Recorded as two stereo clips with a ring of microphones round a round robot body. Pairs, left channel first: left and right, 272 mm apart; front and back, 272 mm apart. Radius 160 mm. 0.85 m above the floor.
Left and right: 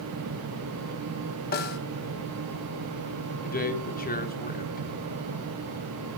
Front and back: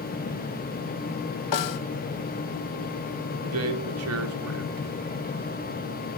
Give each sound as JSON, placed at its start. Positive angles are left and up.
{"t": 1.5, "sound": "a snare drum", "azimuth_deg": 30, "distance_m": 1.5}
{"t": 3.4, "sound": "a man speaking", "azimuth_deg": 145, "distance_m": 3.0}